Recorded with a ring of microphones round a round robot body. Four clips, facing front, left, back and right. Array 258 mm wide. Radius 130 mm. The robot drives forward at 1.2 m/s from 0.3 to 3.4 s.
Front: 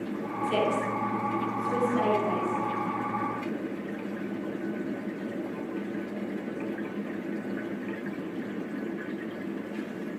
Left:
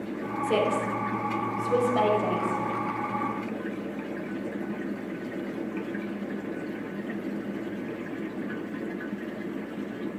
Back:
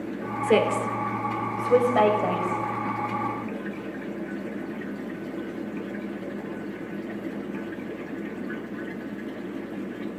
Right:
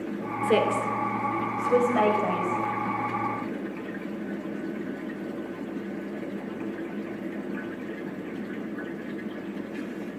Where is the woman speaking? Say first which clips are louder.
Right 2 dB, back 5 dB; 155° right, 2.5 m; by 2.6 s 165° right, 5 m.